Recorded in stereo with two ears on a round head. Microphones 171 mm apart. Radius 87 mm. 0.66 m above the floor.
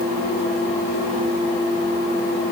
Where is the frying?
I don't hear frying.